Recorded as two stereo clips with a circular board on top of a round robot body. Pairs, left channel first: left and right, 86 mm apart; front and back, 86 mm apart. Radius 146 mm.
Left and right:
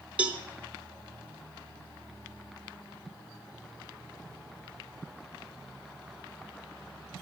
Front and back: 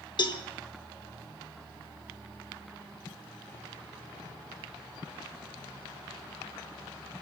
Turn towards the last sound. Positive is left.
turn(degrees=-15)